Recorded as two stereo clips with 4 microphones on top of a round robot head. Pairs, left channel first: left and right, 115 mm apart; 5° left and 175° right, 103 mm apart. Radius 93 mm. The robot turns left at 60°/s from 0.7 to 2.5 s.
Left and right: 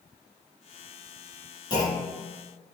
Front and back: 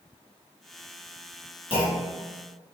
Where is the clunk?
35° left, 1.7 m; by 2.3 s straight ahead, 1.7 m.